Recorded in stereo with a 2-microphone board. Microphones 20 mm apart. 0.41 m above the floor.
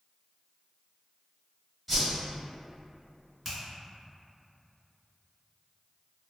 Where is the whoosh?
5° right (ahead or behind), 1.6 m.